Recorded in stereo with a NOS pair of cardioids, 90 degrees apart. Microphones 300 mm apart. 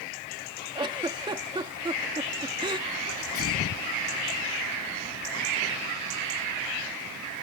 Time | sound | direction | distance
0.8 | a giggle | 15° right | ?
3.1 | a sneeze | 50° left | ?